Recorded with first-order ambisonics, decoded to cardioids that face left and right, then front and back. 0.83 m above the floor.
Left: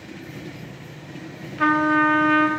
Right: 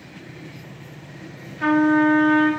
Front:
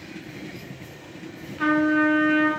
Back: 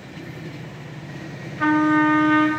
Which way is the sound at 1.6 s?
90° left.